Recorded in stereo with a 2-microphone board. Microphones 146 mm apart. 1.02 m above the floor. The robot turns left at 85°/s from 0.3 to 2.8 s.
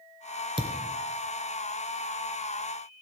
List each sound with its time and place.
0.6 s a thud: 35° right (ahead or behind), 2.0 m; by 0.9 s 5° right (ahead or behind), 2.0 m